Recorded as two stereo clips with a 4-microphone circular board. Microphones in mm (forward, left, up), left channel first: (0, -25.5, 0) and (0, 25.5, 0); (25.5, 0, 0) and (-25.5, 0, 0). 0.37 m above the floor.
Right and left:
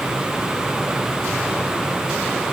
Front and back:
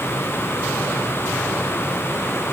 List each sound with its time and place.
Only background noise.